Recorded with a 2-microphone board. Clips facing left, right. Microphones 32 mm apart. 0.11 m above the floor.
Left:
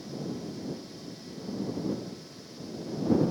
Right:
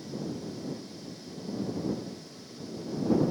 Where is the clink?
I don't hear a clink.